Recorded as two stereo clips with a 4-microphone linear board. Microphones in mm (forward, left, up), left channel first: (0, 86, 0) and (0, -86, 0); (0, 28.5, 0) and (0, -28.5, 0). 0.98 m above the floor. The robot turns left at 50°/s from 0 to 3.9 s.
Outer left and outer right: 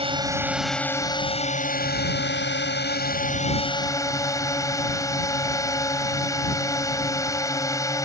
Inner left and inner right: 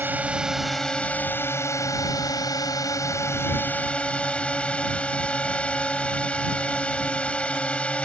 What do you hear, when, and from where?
0.0 s a drone: 145° right; by 8.1 s 20° left